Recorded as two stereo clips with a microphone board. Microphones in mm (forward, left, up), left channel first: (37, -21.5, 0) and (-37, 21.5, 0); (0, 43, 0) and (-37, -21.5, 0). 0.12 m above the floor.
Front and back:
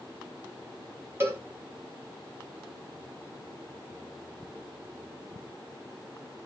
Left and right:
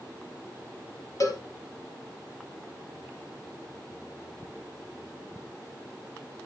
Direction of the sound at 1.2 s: 90° left.